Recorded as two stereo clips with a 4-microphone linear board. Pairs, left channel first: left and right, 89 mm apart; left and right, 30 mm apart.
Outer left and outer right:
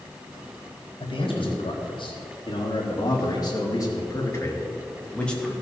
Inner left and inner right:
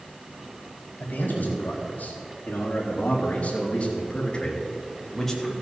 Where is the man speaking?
70° left (ahead or behind), 4 m; by 5.5 s 5° left (ahead or behind), 2.5 m.